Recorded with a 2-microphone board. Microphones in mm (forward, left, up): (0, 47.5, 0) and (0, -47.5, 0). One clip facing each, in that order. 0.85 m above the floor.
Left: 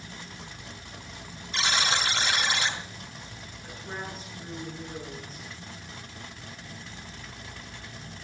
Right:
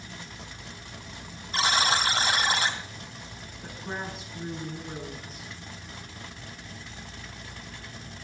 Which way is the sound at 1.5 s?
40° right (ahead or behind).